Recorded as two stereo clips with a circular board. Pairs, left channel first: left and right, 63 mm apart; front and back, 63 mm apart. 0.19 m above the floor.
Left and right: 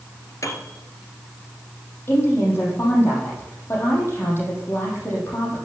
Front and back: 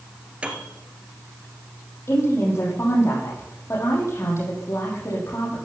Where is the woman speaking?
45° left, 6 m.